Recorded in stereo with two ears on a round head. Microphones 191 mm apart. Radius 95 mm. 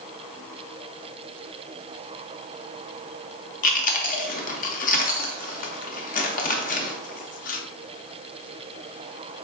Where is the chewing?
35° left (ahead or behind), 0.6 m.